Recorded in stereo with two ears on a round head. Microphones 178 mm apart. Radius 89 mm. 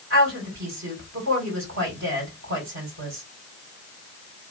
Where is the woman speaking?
60° right (ahead or behind), 2.5 m.